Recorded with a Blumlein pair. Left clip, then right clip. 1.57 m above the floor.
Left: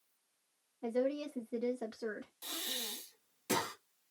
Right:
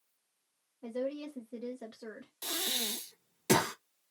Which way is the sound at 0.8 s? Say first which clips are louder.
Left 2 dB; 15° left.